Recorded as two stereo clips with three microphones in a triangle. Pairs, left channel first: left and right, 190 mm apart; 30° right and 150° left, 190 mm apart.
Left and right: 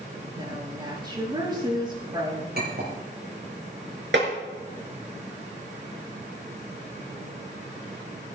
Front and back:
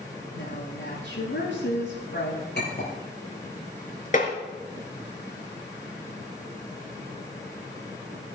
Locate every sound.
0.3 s a woman speaking: 25° right, 7 m
2.5 s a clink: 60° right, 5.5 m
4.1 s tapping: 75° right, 4 m